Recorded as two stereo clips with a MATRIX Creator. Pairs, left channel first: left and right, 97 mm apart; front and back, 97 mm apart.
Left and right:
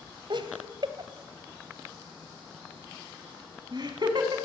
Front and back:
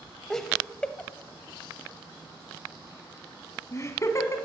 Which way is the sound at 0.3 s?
85° right.